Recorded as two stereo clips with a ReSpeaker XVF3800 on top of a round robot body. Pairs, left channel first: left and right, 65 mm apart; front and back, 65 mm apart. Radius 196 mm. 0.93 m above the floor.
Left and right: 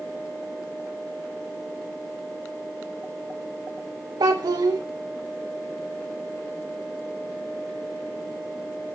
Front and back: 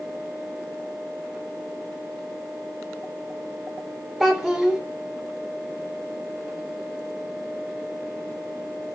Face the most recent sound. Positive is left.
turn(degrees=-90)